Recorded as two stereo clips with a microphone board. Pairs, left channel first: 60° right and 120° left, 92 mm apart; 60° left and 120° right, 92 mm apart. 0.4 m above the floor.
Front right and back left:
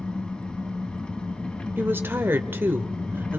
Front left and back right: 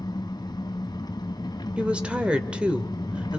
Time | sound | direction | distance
0.0 | an engine running | 20° left | 1.3 m
1.8 | a woman speaking | 170° left | 1.1 m